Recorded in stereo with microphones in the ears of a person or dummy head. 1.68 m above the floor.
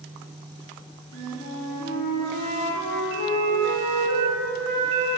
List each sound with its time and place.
1.1 s a flute: 55° left (ahead or behind), 4 m